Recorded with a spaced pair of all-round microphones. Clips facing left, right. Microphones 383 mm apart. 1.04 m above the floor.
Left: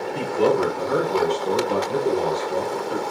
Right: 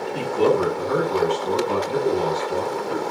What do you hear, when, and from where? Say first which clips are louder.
0.1 s a man speaking: right 1 dB; 40° right (ahead or behind), 1.1 m